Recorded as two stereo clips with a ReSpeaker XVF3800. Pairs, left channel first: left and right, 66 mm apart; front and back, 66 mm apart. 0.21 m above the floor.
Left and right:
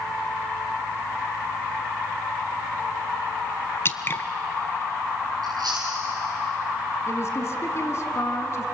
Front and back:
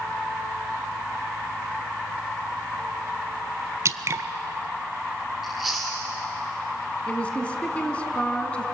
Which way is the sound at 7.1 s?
65° left.